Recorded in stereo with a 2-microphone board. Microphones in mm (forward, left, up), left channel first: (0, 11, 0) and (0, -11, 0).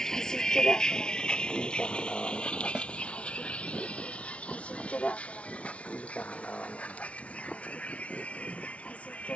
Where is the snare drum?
45° right (ahead or behind).